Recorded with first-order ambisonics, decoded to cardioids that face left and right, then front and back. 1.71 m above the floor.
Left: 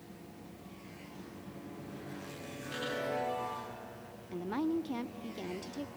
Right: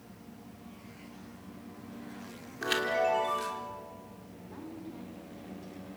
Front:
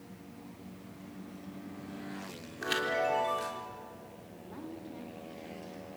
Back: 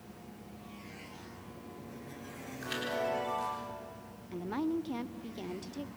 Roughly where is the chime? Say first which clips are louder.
Right 9 dB, front 4 dB; ahead right.